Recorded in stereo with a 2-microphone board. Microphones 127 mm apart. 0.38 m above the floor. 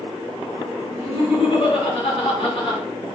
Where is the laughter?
60° left (ahead or behind), 3 m.